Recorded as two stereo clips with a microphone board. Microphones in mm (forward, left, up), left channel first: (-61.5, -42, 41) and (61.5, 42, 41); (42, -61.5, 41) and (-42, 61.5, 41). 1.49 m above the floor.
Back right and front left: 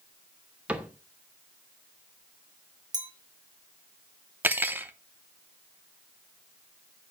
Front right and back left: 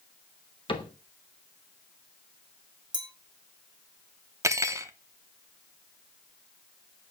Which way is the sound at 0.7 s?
40° right.